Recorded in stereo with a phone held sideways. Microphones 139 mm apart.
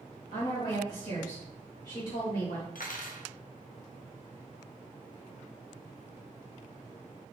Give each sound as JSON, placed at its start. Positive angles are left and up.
{"t": 0.3, "sound": "a woman speaking", "side_deg": 70, "distance_m": 1.8}
{"t": 2.8, "sound": "cutlery clinking", "side_deg": 85, "distance_m": 0.5}